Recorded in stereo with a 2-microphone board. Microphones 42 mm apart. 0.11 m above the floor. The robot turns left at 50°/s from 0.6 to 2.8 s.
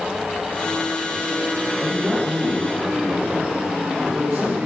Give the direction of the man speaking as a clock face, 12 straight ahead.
12 o'clock.